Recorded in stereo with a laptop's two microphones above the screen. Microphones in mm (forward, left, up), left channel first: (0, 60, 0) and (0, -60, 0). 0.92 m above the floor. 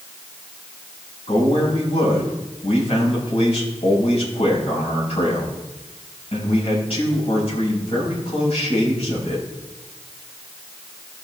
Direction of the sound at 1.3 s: 55° left (ahead or behind).